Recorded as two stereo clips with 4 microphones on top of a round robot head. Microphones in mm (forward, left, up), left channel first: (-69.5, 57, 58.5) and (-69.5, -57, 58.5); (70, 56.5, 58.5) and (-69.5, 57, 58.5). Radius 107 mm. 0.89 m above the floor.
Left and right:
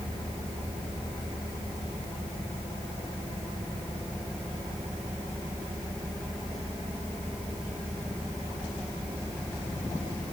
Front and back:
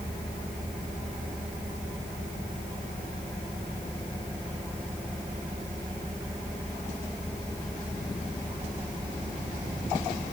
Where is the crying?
I don't hear crying.